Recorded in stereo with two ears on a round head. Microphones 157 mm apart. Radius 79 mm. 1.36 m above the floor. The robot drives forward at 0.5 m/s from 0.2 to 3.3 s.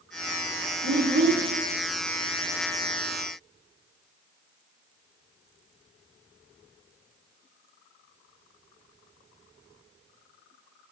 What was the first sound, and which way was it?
A child speaking, 65° right (ahead or behind).